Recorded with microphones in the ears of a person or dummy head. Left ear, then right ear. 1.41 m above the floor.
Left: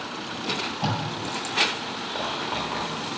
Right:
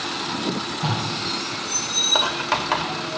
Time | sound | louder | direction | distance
0.4 | tape being pulled | right 2 dB | 40° left (ahead or behind) | 8 m
2.1 | writing | right 7 dB | 60° right (ahead or behind) | 1.7 m